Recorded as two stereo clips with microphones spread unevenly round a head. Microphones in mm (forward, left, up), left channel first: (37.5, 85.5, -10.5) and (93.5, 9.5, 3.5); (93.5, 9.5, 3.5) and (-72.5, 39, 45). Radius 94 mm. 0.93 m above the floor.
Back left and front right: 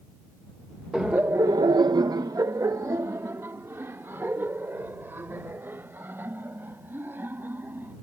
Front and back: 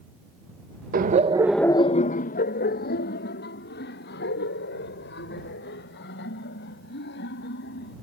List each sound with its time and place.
0.9 s laughter: 145° right; by 7.9 s 15° left